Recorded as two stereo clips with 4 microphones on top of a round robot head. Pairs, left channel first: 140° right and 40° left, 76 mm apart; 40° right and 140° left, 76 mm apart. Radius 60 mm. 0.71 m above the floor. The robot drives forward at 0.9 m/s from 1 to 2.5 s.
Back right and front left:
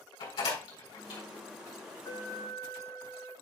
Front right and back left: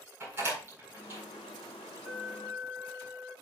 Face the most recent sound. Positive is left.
turn(degrees=-145)